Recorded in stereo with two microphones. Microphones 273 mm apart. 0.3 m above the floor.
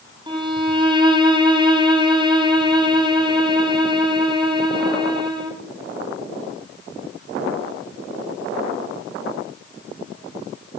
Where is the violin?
15° right (ahead or behind), 3.5 m.